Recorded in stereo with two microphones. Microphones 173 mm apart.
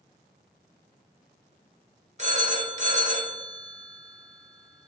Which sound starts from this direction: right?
A phone ringing, at 2.2 s.